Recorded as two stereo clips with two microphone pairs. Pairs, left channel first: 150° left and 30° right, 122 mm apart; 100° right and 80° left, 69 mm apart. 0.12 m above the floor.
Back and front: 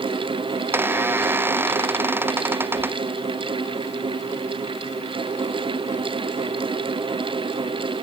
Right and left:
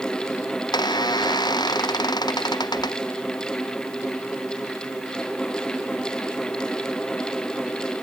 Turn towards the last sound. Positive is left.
turn(degrees=-100)